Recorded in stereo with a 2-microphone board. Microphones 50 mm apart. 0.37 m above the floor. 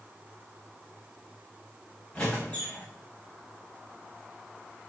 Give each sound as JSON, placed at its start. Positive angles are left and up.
{"t": 2.1, "sound": "a squeak", "side_deg": 25, "distance_m": 5.0}